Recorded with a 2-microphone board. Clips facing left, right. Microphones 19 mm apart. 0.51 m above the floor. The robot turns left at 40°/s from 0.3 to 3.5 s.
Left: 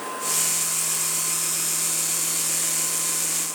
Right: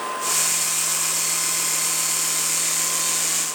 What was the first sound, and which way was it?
Only background noise.